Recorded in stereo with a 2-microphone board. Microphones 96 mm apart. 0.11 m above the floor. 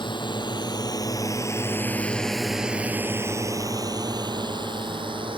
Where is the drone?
55° left (ahead or behind); by 5.4 s 60° right (ahead or behind).